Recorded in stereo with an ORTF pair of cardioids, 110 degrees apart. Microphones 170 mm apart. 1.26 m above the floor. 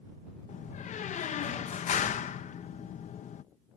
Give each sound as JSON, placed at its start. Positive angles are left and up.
{"t": 0.5, "sound": "a door slam", "azimuth_deg": 45}